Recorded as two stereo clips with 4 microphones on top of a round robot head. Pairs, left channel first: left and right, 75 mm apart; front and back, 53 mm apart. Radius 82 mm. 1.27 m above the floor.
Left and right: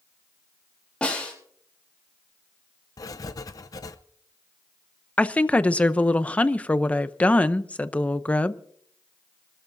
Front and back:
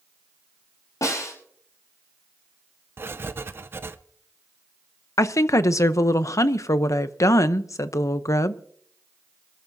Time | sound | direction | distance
1.0 | a snare drum | 15° left | 6.5 m
3.0 | writing | 135° left | 0.7 m
5.2 | a woman speaking | 20° left | 0.8 m